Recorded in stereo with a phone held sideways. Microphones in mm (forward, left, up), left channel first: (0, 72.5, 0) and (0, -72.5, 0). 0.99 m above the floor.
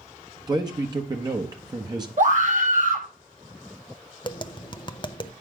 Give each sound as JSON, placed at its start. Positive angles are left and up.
{"t": 0.5, "sound": "a man speaking", "side_deg": -30, "distance_m": 1.1}
{"t": 2.2, "sound": "a scream", "side_deg": -60, "distance_m": 2.0}
{"t": 4.2, "sound": "tapping", "side_deg": 30, "distance_m": 0.6}